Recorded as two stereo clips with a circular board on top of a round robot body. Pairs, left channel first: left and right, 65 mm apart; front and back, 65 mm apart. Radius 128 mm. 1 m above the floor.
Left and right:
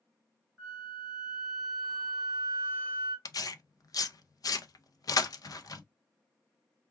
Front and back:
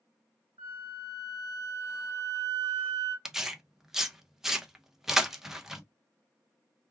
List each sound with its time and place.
0.6 s a flute: 175° right, 0.8 m
3.2 s tearing paper: 95° left, 0.6 m